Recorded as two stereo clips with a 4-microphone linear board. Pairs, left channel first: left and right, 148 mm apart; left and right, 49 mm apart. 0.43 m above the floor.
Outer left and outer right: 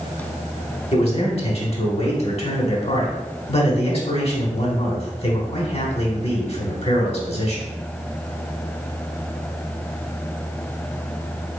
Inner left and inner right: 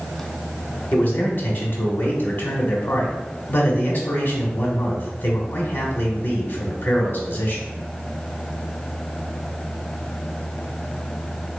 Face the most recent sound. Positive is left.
turn(degrees=45)  # may be behind; listen again after turning